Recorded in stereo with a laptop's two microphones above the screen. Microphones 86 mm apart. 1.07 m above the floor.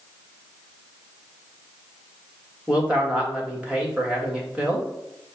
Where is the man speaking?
15° right (ahead or behind), 1.7 m.